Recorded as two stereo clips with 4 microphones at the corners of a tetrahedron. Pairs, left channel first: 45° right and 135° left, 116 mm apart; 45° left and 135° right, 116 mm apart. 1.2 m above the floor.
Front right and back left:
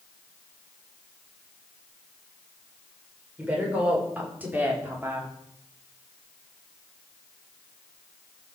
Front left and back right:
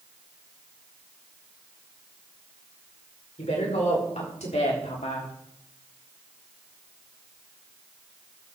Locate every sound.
3.4 s a woman speaking: 55° left, 5.5 m; by 5.3 s 65° left, 3 m